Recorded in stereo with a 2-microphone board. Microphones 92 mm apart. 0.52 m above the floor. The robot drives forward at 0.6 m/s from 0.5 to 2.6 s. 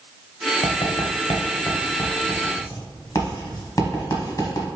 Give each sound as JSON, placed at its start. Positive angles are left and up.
{"t": 0.6, "sound": "writing", "side_deg": 80, "distance_m": 0.8}